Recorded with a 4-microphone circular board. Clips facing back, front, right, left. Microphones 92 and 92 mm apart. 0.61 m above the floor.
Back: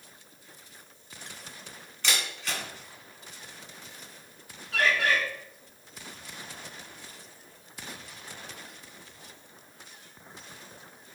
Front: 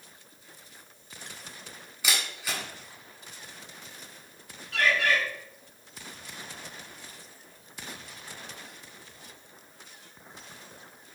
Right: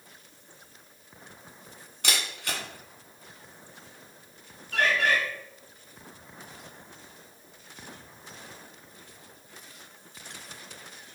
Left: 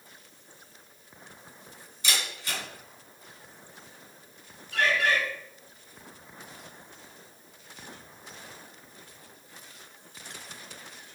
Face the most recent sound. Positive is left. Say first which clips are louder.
# even, right 1 dB
turn(degrees=-125)